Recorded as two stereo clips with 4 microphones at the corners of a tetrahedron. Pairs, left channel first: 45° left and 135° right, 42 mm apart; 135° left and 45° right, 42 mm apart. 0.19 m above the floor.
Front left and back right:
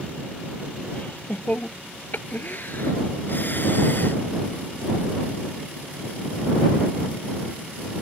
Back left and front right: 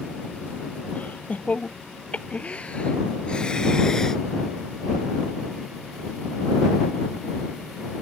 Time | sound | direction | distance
0.9 | laughter | 85° left | ?